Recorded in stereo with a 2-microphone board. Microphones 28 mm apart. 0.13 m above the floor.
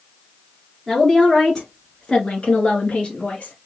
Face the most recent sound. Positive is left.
turn(degrees=50)  # may be behind; listen again after turning